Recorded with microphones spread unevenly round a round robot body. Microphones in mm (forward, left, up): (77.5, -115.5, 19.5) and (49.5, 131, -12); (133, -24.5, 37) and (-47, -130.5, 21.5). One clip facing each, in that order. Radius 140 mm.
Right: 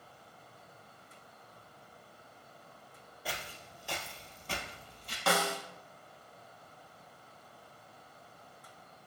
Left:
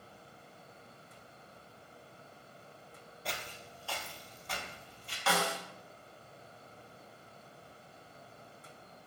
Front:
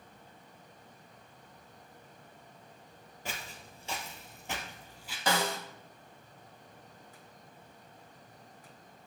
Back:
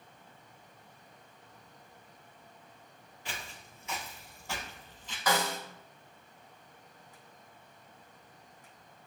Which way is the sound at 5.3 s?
35° right.